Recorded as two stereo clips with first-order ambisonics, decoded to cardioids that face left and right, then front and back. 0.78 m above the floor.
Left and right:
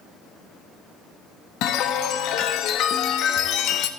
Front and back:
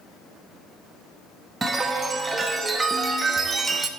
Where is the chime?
105° left, 0.9 m.